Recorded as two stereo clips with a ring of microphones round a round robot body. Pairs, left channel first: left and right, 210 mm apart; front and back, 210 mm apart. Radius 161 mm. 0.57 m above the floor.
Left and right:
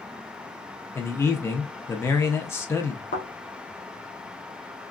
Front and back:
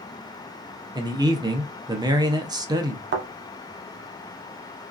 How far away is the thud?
About 0.7 m.